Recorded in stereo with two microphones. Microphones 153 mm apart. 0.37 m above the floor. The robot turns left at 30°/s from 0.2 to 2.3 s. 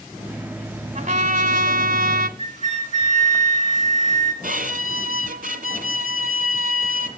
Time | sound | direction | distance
0.9 | a trumpet | 50° right | 1.3 m
2.4 | a flute | 55° left (ahead or behind) | 3 m
4.4 | a violin | 70° right (ahead or behind) | 1.6 m